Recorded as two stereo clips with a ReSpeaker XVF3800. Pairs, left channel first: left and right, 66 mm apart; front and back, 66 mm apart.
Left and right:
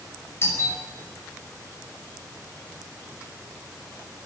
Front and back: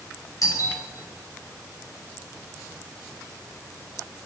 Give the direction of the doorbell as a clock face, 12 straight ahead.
11 o'clock.